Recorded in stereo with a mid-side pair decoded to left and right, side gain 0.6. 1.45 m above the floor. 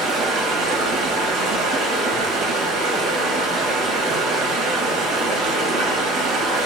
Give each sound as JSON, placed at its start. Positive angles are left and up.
{"t": 0.0, "sound": "running water", "azimuth_deg": -65, "distance_m": 1.4}